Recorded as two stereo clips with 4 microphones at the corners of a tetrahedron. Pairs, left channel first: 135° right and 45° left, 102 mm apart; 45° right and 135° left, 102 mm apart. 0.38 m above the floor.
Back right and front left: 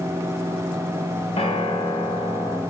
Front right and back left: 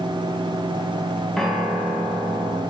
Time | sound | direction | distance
1.4 | a piano | 130° right | 1.8 m